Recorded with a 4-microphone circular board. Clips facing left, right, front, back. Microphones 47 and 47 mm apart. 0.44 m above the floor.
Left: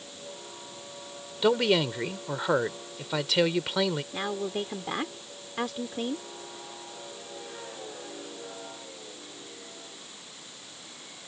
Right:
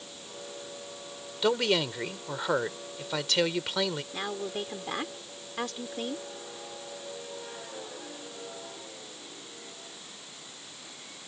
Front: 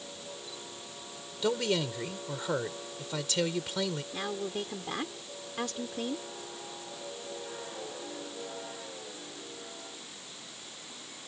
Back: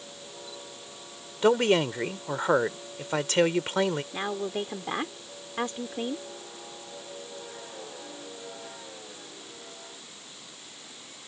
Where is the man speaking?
170° left.